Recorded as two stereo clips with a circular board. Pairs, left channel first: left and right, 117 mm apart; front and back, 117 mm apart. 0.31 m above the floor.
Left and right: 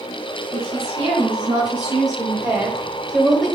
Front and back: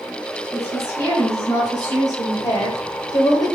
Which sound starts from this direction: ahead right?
A woman speaking, at 0.5 s.